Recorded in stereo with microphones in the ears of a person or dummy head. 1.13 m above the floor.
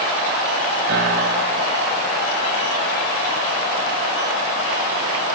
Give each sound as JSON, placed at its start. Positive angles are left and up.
{"t": 0.9, "sound": "a piano", "side_deg": -55, "distance_m": 4.0}